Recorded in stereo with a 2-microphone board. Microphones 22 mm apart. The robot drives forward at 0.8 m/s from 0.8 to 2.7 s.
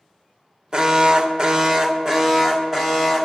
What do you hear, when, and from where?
0.7 s an alarm: 30° right (ahead or behind), 0.9 m; by 3.2 s 20° right (ahead or behind), 1.5 m